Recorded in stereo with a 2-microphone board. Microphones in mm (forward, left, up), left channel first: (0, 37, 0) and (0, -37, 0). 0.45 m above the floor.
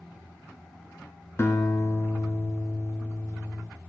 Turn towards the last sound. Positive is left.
turn(degrees=35)  # may be behind; listen again after turning